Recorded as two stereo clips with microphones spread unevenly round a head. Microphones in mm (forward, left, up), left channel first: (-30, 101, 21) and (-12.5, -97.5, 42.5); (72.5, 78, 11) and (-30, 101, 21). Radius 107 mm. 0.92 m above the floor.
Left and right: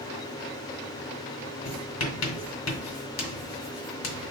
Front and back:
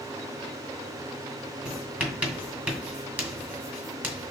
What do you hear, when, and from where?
1.6 s writing: 95° left, 2 m